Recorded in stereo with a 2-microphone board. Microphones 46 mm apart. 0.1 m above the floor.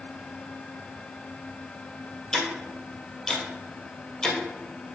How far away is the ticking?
About 1.6 m.